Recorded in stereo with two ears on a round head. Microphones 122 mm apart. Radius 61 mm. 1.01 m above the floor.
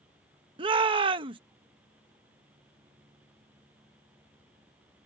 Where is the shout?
35° right (ahead or behind).